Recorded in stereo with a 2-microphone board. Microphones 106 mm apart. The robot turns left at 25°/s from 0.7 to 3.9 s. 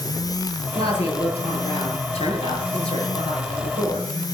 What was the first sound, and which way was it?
A woman speaking, 120° left.